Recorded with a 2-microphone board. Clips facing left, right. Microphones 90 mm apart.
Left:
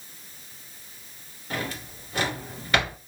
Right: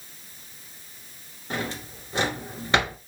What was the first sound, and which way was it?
A drawer, 25° right (ahead or behind).